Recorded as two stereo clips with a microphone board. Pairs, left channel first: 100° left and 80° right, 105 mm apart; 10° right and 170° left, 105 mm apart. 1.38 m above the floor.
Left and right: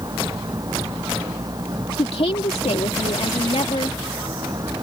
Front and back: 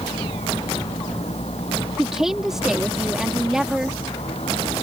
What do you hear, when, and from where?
0.0 s a vehicle: 25° right
2.0 s a woman speaking: 85° left